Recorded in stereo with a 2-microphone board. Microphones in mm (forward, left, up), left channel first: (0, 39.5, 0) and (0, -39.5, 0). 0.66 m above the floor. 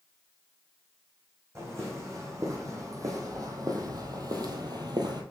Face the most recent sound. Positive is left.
turn(degrees=-60)  # may be behind; listen again after turning